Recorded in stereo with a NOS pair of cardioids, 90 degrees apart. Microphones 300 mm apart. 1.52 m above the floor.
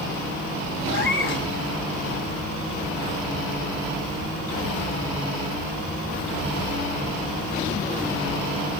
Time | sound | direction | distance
0.9 | a cat meowing | 40° left | 3.5 m